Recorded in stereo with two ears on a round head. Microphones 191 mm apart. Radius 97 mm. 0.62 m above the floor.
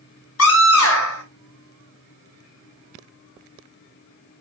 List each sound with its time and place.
0.4 s a scream: 70° left (ahead or behind), 3.5 m